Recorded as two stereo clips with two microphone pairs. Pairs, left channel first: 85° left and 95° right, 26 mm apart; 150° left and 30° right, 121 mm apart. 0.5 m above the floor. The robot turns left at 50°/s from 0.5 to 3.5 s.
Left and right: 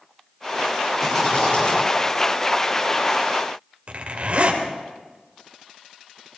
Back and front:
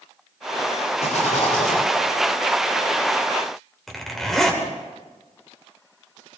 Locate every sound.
1.0 s a rattle: 175° left, 9.5 m; by 1.8 s 135° left, 9.5 m
3.9 s a zipper: 125° right, 2.5 m